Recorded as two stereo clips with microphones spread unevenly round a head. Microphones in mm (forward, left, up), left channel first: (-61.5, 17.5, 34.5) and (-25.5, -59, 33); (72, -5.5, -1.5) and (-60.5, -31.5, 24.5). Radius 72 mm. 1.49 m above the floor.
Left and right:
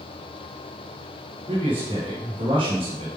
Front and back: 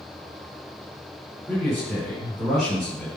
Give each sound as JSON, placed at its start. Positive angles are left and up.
{"t": 1.5, "sound": "a man speaking", "azimuth_deg": -80, "distance_m": 5.5}